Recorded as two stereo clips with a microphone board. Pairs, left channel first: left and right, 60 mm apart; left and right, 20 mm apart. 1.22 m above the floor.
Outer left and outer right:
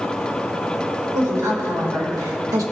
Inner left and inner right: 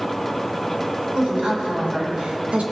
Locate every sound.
1.1 s a woman speaking: 75° right (ahead or behind), 3 m; by 2.6 s 80° right, 1.4 m